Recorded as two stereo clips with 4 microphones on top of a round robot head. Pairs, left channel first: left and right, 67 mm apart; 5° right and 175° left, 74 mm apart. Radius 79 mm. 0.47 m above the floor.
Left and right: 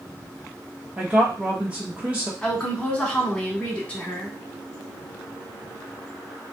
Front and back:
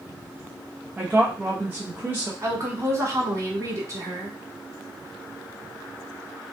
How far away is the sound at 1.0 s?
About 0.8 m.